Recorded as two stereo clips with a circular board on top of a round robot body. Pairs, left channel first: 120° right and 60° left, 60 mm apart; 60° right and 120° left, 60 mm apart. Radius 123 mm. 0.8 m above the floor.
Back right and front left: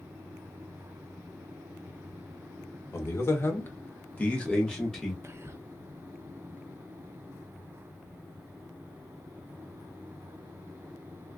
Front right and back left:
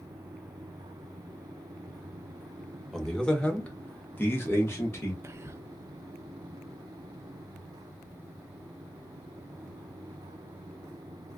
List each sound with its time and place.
2.9 s a man speaking: 140° right, 1.4 m; by 5.1 s 35° right, 1.4 m
5.2 s whispering: 95° left, 0.5 m